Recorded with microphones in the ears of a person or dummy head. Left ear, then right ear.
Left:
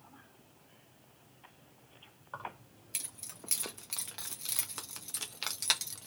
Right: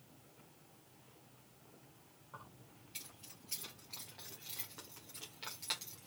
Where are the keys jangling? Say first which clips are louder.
Left 12 dB; 50° left (ahead or behind), 1.9 m; by 6.1 s 35° left (ahead or behind), 1.2 m.